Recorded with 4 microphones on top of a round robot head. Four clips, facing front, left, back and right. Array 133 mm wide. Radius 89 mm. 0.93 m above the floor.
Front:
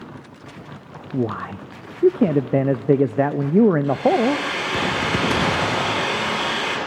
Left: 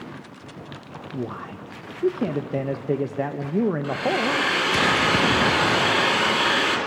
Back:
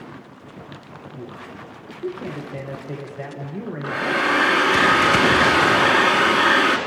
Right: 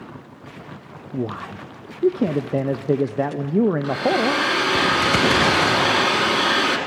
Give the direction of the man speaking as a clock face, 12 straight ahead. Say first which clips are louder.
Right 4 dB, front 14 dB; 1 o'clock.